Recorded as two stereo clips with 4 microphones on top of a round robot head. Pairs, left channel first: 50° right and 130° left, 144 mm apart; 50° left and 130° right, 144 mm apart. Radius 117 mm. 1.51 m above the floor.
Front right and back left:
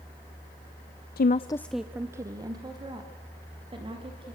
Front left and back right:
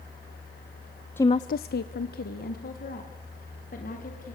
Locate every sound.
1.2 s a woman speaking: 30° right, 0.5 m; by 4.3 s 75° left, 4 m